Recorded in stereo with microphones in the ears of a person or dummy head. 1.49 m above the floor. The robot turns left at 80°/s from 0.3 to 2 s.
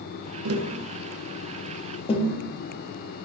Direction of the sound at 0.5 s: 75° right (ahead or behind).